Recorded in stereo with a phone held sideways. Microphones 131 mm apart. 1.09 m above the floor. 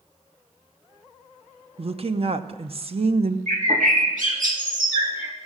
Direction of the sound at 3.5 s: 80° right.